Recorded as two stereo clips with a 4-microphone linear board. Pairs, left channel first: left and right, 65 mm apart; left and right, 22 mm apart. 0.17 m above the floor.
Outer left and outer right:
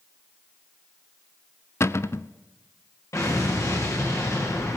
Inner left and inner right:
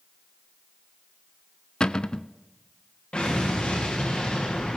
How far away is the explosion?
About 8 m.